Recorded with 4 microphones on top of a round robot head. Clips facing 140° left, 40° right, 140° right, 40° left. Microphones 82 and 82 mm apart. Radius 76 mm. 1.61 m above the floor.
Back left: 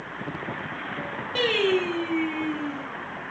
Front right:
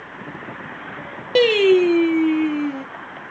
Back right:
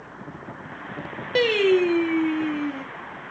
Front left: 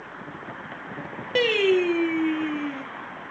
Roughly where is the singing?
Ahead right.